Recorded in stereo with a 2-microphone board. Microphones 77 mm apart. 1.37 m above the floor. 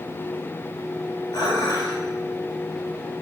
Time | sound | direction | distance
1.3 | dishes clattering | 65° left (ahead or behind) | 4 m